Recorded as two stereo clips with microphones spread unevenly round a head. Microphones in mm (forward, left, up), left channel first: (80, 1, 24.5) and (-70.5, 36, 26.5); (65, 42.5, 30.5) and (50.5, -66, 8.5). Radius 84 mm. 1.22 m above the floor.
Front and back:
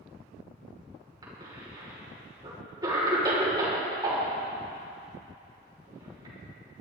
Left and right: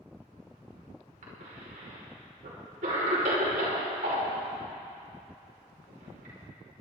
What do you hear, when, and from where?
1.2 s a cough: 125° right, 5.5 m